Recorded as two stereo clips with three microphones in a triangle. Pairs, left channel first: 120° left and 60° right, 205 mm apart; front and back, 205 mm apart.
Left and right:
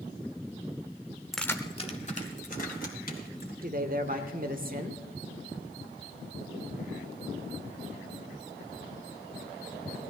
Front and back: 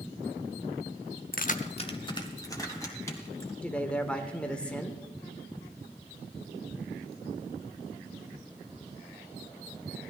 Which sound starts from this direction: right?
A man speaking, at 3.6 s.